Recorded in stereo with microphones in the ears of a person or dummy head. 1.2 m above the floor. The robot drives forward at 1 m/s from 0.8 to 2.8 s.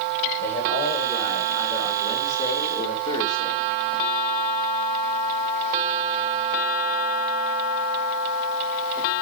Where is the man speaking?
15° left (ahead or behind), 4.5 m; by 3.6 s 25° left (ahead or behind), 2.5 m.